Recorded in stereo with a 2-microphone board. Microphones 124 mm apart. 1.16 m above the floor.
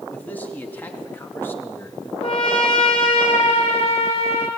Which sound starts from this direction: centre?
A man speaking, at 0.1 s.